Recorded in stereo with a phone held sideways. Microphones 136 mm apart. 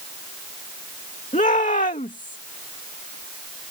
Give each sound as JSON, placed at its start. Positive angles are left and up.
{"t": 1.3, "sound": "a shout", "side_deg": 70}